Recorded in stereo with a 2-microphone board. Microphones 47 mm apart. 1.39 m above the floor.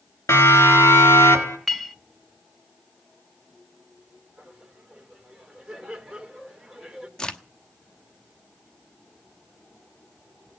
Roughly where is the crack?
Centre.